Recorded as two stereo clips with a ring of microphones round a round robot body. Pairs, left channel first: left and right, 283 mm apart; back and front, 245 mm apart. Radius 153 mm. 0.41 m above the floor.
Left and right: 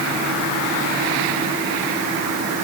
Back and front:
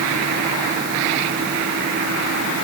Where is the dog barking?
I don't hear a dog barking.